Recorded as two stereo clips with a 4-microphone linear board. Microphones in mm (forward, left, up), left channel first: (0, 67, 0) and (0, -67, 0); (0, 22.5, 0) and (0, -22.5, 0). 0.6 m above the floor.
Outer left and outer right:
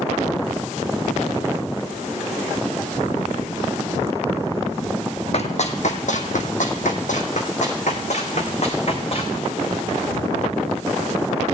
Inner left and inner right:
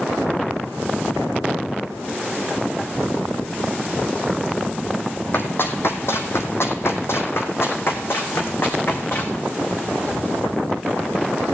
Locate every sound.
5.3 s running footsteps: 55° left (ahead or behind), 1.6 m; by 9.4 s 50° left (ahead or behind), 3 m